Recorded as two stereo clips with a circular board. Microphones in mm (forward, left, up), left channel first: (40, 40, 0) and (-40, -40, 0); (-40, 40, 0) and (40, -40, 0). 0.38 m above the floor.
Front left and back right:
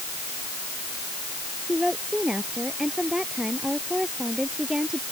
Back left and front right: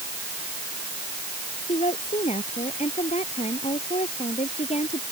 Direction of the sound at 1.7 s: 140° left.